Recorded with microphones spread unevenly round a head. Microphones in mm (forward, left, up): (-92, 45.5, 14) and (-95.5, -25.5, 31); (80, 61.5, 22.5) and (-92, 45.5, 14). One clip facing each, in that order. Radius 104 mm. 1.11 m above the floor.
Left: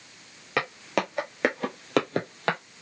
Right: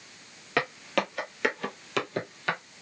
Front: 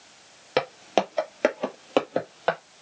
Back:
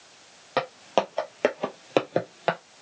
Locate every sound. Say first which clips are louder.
0.6 s footsteps: even, front 1 dB; 20° right, 1.2 m; by 2.6 s 115° left, 1.5 m